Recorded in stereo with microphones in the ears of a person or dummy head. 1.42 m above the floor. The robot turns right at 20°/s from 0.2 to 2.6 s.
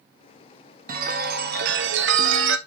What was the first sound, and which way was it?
A chime, 130° right.